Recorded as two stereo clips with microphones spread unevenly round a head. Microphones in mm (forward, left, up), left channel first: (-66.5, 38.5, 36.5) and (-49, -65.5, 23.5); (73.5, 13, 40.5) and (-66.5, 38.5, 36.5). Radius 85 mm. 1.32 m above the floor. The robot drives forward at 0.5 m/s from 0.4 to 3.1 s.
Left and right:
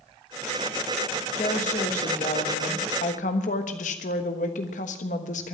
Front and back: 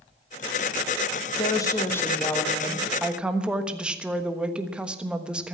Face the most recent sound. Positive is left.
turn(degrees=85)